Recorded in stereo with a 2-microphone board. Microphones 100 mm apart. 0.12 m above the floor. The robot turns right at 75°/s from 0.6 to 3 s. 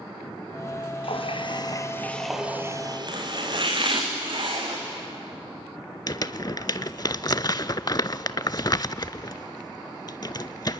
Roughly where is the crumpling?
Left.